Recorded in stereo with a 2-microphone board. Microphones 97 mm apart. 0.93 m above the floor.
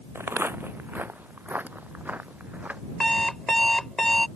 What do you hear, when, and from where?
0.1 s footsteps: 25° right (ahead or behind); by 2.8 s 15° right (ahead or behind)
3.0 s an alarm clock: 5° left (ahead or behind)